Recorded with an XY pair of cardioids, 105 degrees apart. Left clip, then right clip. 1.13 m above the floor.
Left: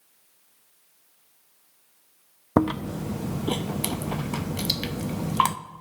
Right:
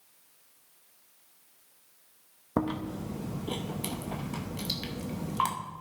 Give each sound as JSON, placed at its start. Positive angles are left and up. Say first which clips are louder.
{"t": 2.6, "sound": "chewing", "louder": "left 7 dB", "azimuth_deg": 55, "distance_m": 0.7}